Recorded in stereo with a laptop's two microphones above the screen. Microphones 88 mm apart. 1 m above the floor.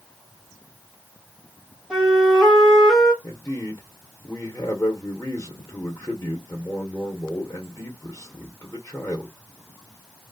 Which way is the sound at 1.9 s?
5° right (ahead or behind).